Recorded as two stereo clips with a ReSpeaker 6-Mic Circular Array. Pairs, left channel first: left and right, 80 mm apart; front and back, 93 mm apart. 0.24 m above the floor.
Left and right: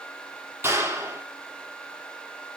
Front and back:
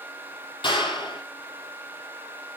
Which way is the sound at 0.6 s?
30° right.